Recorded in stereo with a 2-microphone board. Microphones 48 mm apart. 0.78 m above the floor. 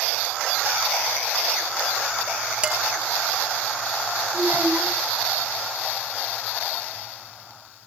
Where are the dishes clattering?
25° right (ahead or behind), 3 m.